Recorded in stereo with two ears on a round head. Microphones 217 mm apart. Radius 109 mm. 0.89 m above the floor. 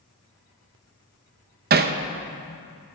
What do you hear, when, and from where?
1.7 s hammering: 40° right (ahead or behind), 0.6 m